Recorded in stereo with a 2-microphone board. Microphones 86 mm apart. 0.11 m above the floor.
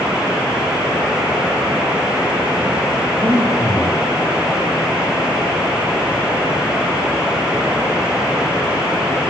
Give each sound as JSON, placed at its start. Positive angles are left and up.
{"t": 3.2, "sound": "breathing", "side_deg": -35, "distance_m": 9.0}